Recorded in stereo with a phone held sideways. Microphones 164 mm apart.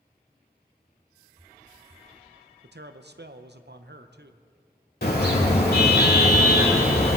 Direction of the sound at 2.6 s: 80° right.